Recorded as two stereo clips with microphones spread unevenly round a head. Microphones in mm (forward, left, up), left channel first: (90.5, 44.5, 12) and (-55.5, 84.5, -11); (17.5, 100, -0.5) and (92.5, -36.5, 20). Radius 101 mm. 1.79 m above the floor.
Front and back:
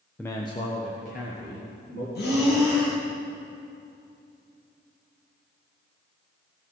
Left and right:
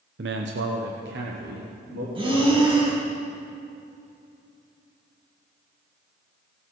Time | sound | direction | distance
0.2 | a man speaking | 95° right | 0.6 m
2.1 | breathing | 5° right | 2.5 m